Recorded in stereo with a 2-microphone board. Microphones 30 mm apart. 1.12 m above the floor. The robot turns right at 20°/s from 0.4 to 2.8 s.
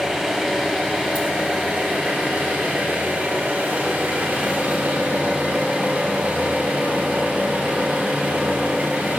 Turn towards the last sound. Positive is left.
turn(degrees=-105)